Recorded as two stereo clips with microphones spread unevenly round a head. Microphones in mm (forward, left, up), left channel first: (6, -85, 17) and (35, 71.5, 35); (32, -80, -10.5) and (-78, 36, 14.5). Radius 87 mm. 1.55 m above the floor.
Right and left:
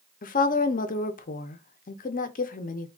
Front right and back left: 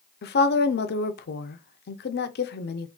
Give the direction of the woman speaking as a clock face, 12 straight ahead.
2 o'clock.